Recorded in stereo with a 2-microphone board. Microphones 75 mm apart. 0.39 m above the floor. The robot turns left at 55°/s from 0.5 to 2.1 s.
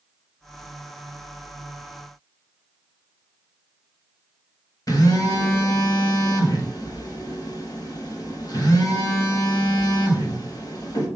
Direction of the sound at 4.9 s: 50° left (ahead or behind).